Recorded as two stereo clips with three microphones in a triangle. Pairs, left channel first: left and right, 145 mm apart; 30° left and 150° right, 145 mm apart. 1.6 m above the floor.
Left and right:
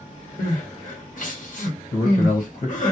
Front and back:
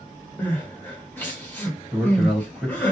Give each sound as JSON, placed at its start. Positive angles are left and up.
{"t": 0.4, "sound": "crying", "azimuth_deg": 105, "distance_m": 1.0}
{"t": 1.9, "sound": "a man speaking", "azimuth_deg": 120, "distance_m": 1.3}